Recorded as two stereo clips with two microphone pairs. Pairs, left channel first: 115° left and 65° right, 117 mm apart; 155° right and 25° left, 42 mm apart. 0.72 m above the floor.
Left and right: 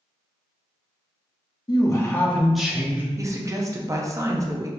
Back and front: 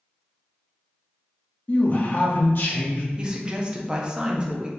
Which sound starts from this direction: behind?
A man speaking, at 1.7 s.